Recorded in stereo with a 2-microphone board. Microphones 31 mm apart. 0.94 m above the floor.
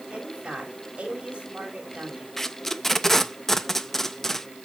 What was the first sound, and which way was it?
A woman speaking, 35° right (ahead or behind).